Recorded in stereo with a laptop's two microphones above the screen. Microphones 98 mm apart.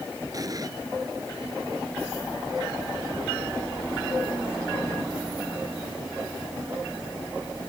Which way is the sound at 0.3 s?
40° right (ahead or behind).